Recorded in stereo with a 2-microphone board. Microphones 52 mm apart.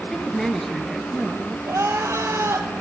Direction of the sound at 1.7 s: 70° right (ahead or behind).